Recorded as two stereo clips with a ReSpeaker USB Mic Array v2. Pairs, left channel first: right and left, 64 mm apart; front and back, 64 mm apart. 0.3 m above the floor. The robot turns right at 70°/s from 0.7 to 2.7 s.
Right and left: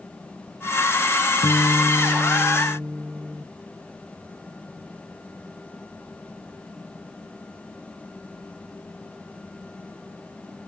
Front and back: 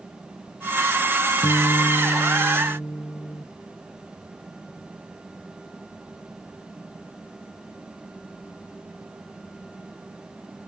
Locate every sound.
1.4 s a guitar: 75° right, 0.6 m; by 3.5 s 15° left, 0.6 m